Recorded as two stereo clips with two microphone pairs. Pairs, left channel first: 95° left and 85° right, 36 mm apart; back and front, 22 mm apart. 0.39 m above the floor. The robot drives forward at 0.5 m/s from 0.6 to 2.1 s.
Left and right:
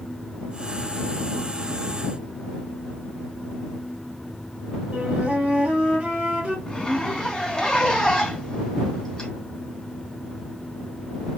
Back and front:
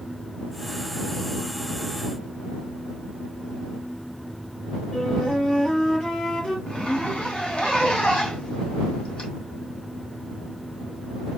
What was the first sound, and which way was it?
A flute, 150° right.